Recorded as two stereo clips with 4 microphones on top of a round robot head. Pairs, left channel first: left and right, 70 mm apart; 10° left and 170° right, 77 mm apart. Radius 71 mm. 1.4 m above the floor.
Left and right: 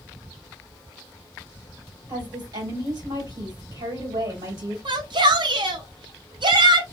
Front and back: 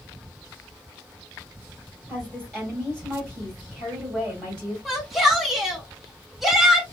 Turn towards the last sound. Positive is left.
turn(degrees=-85)